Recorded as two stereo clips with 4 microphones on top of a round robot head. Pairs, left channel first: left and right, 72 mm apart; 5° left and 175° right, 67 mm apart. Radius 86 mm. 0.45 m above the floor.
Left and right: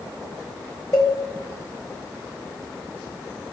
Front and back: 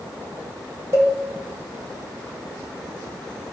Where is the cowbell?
140° left, 3.5 m.